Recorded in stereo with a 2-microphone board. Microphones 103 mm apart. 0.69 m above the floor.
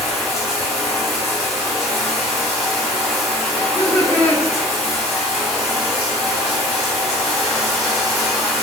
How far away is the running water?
About 1.7 m.